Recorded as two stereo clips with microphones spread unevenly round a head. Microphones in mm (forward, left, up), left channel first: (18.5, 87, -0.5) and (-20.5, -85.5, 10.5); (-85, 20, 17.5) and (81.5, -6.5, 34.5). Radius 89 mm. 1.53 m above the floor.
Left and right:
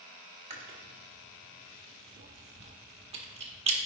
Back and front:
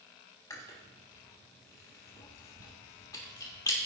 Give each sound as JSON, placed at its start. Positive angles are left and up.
{"t": 0.5, "sound": "chewing", "azimuth_deg": -120, "distance_m": 1.3}